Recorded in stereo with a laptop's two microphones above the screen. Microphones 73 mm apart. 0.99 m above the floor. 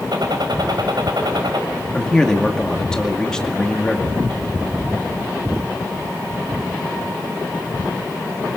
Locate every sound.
0.1 s a gunshot: 70° right (ahead or behind), 4 m
1.9 s a man speaking: 10° left (ahead or behind), 2.5 m